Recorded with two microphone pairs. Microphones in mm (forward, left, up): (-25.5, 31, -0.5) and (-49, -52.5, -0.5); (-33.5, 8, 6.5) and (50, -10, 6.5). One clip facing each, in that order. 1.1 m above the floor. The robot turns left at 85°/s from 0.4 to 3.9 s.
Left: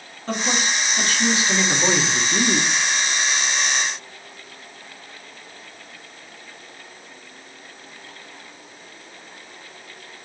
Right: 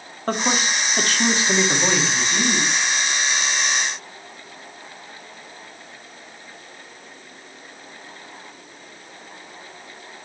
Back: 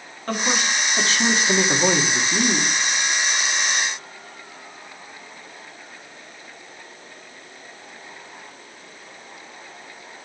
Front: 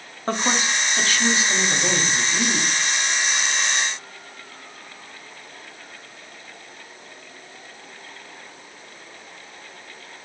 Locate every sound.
0.3 s a man speaking: 70° right, 2.5 m; by 2.7 s 95° left, 2.5 m